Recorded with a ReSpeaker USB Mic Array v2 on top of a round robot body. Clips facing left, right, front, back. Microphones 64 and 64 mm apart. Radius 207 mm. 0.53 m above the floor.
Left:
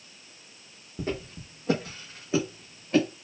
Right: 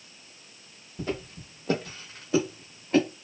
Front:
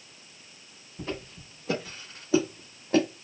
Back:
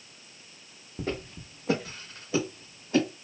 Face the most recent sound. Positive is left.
turn(degrees=-10)